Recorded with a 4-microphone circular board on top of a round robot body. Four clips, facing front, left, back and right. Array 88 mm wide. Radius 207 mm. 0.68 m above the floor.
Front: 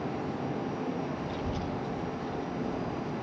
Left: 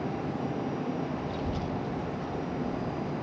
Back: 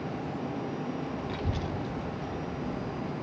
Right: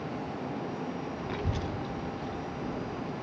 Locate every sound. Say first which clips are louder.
1.3 s a child speaking: left 2 dB, even; 105° right, 1.2 m; by 3.1 s straight behind, 3 m